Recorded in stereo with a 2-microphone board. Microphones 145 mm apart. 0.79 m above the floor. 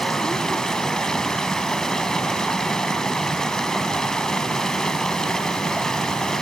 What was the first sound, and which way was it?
Running water, 5° left (ahead or behind).